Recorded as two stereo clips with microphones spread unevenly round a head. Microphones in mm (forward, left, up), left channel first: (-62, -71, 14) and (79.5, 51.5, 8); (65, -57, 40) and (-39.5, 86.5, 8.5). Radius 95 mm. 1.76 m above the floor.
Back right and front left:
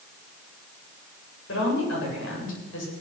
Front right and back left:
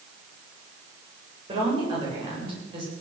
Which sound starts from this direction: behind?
A woman speaking, at 1.5 s.